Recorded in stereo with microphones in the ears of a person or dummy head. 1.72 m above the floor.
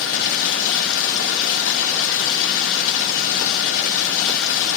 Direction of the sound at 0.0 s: 70° left (ahead or behind).